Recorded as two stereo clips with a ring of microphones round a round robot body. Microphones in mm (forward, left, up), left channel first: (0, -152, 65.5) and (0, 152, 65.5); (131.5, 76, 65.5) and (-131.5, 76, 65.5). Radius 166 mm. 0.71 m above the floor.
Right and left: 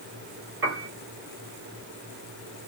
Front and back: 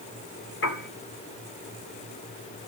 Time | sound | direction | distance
0.6 | a piano | 40° left | 3.5 m